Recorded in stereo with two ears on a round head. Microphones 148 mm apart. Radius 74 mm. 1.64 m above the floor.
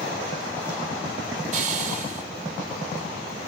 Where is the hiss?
45° right (ahead or behind), 5.5 m.